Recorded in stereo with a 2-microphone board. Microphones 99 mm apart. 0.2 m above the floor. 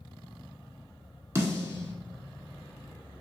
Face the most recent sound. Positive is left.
turn(degrees=-30)  # may be behind; listen again after turning